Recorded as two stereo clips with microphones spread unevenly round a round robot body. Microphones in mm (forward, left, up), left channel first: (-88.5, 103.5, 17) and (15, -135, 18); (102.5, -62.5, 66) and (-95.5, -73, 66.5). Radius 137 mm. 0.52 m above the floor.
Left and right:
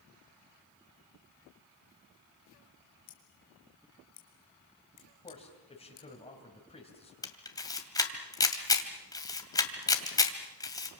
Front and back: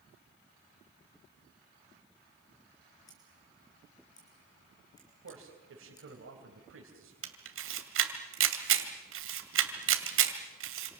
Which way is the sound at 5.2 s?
Straight behind.